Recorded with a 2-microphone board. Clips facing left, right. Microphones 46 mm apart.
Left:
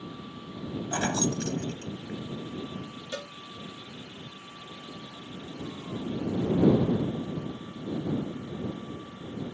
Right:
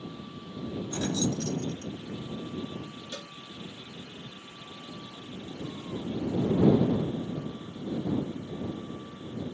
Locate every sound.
0.9 s keys jangling: 55° left (ahead or behind)
3.1 s a cowbell: 25° left (ahead or behind)